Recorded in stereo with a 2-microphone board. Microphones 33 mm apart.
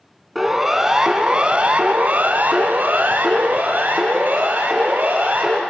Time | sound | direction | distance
0.3 | a siren | 5° right (ahead or behind) | 2 m